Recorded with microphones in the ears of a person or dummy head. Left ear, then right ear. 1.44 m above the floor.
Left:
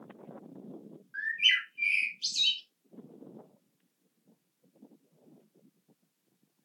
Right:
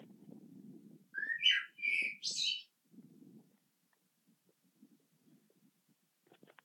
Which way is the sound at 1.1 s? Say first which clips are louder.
Left 6 dB; 60° left (ahead or behind).